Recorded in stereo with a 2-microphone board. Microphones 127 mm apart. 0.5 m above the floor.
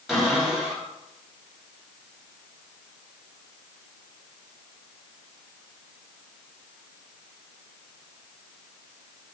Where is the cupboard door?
Centre (ahead or behind), 3.5 m.